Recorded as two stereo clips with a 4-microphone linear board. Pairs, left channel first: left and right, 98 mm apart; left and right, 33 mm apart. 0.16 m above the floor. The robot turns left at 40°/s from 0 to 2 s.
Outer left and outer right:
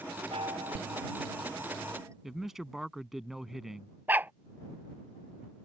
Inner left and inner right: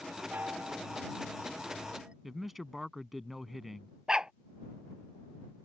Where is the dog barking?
20° right (ahead or behind).